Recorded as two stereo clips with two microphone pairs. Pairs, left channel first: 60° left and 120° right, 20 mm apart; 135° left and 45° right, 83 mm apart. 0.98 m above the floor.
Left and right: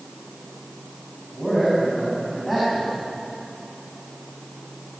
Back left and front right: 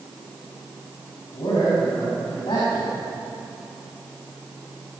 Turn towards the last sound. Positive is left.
turn(degrees=155)